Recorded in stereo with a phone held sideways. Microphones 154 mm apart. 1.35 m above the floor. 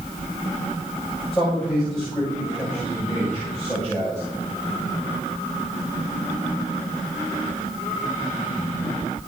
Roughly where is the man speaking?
Centre.